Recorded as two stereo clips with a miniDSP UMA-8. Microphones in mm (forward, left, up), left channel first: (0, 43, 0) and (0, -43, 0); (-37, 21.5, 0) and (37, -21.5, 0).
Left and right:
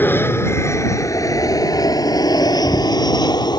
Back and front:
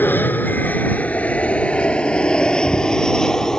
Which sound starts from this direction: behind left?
An aircraft, at 0.0 s.